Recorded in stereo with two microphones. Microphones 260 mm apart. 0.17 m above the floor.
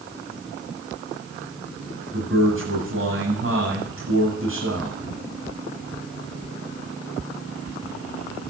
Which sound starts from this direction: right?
A man speaking, at 2.1 s.